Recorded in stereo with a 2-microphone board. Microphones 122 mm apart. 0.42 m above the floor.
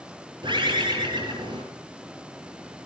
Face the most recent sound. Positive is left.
turn(degrees=-40)  # may be behind; listen again after turning